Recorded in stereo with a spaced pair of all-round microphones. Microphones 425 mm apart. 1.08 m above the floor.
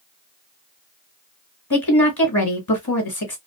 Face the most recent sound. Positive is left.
turn(degrees=60)  # may be behind; listen again after turning